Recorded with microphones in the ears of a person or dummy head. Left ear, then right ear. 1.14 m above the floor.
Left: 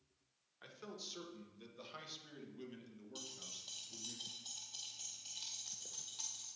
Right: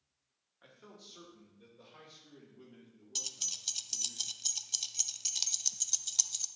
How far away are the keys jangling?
About 0.5 m.